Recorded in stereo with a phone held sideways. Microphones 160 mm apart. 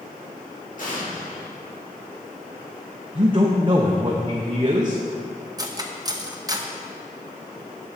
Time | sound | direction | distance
0.8 | an explosion | 60° left (ahead or behind) | 2.5 m
3.1 | a man speaking | 30° right (ahead or behind) | 0.8 m
5.6 | cutlery clinking | 25° right (ahead or behind) | 0.8 m